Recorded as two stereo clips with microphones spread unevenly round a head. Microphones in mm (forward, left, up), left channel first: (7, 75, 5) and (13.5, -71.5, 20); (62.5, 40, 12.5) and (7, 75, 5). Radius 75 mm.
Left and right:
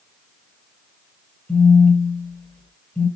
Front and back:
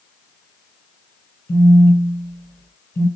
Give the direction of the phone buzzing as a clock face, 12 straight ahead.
12 o'clock.